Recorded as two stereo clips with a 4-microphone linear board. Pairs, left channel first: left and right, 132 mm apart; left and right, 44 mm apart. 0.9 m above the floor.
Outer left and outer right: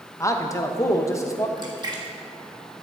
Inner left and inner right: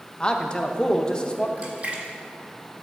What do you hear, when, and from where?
0.2 s a man speaking: 25° left (ahead or behind), 0.7 m
1.6 s a splash: 35° right (ahead or behind), 1.1 m